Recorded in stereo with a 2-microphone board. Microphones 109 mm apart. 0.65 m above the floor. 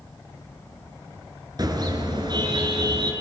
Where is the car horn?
40° right (ahead or behind), 5.5 m; by 3.1 s 55° right (ahead or behind), 5.5 m.